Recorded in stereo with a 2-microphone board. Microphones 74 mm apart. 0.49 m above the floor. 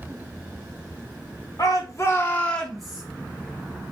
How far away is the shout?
About 1.1 m.